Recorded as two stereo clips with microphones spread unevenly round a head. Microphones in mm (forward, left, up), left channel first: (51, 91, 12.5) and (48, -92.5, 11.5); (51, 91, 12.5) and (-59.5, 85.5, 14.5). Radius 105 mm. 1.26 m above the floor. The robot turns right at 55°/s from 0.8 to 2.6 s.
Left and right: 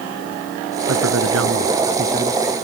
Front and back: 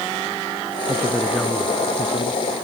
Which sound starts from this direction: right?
A man speaking, at 0.9 s.